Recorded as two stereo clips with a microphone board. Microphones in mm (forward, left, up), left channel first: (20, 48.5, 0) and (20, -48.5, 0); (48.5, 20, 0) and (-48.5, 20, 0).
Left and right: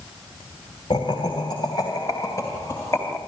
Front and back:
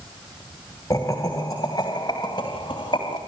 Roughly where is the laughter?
Ahead left.